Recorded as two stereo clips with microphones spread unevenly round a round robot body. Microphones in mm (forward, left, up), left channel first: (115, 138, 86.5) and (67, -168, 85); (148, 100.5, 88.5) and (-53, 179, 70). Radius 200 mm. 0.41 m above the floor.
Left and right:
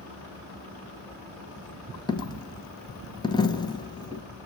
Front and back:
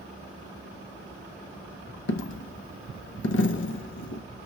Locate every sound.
2.1 s a dropped coin: 5° left, 0.6 m